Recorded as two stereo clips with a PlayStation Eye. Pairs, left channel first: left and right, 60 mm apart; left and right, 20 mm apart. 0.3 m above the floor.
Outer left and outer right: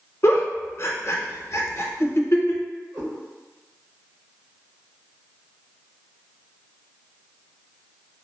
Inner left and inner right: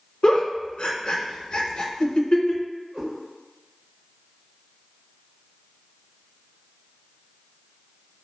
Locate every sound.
0.2 s a giggle: 55° left (ahead or behind), 0.5 m
2.9 s a cat meowing: 75° right (ahead or behind), 1.9 m